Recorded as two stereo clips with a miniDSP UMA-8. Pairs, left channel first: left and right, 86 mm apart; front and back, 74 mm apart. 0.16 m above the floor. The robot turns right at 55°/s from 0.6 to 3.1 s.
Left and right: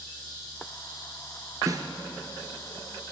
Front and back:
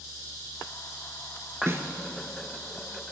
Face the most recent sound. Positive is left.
turn(degrees=-50)